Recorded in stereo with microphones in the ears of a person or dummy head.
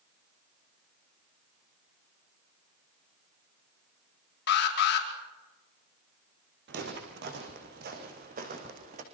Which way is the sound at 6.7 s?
60° right (ahead or behind).